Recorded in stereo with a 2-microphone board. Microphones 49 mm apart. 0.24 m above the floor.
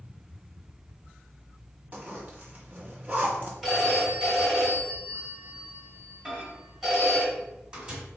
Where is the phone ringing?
10° right (ahead or behind), 1.9 m.